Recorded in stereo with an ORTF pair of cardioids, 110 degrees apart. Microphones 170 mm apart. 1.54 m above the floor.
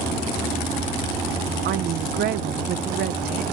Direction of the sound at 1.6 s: 70° right.